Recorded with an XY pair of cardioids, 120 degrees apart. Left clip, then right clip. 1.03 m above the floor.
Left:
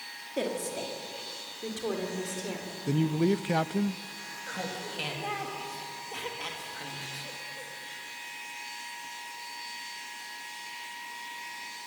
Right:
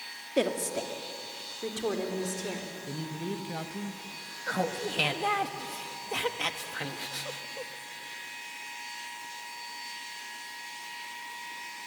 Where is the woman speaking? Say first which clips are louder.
Right 4 dB; 35° right, 2 m; by 2.6 s 10° right, 3.5 m.